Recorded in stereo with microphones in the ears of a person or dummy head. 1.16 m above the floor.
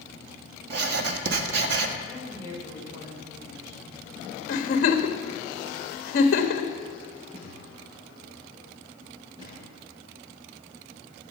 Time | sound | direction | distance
0.7 | writing | 65° right (ahead or behind) | 1.2 m
2.0 | a woman speaking | 20° right (ahead or behind) | 4.5 m
4.5 | a giggle | 55° left (ahead or behind) | 1.3 m
7.3 | a thud | 30° right (ahead or behind) | 6 m